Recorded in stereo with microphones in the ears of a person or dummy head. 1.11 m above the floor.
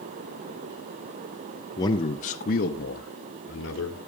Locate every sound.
1.8 s a man speaking: 15° left (ahead or behind), 0.7 m; by 4.0 s 50° left (ahead or behind), 1.5 m